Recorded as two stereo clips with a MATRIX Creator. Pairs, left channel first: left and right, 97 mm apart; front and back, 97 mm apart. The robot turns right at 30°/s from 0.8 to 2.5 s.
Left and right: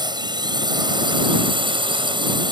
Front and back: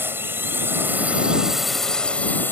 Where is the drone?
115° right; by 2.5 s 65° right.